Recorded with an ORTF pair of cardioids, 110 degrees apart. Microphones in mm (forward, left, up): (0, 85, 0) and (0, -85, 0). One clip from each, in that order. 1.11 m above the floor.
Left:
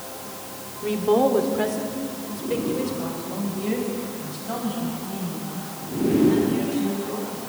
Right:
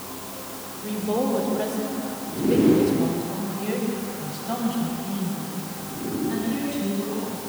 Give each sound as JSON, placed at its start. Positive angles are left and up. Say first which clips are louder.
{"t": 0.8, "sound": "a woman speaking", "louder": "left 6 dB", "azimuth_deg": 50, "distance_m": 3.0}